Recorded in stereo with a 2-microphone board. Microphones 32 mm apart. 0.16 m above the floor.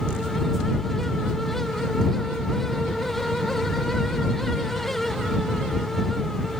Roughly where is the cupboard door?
No cupboard door in this recording.